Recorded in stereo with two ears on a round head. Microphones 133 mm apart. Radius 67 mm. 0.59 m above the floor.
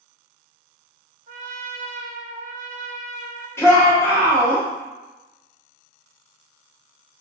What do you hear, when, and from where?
1.3 s a trumpet: 55° right (ahead or behind), 0.6 m
3.6 s a shout: 15° left (ahead or behind), 1.1 m